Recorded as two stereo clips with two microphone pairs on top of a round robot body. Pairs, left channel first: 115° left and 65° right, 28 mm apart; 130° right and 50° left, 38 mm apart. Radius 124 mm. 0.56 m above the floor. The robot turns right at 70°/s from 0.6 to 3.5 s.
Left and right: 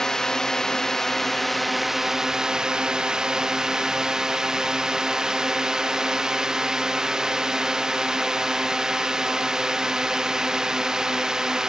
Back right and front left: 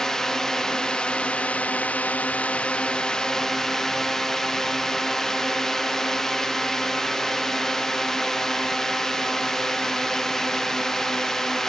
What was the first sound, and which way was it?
A drone, 130° left.